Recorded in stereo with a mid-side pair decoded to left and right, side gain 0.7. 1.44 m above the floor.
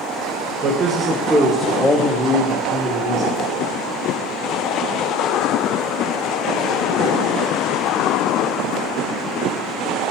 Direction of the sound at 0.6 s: 35° right.